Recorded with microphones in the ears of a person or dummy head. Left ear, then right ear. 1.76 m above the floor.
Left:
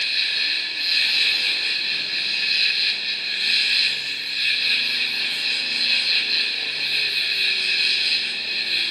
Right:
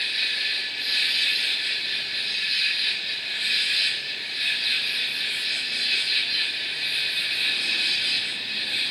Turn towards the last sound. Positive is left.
turn(degrees=35)  # may be behind; listen again after turning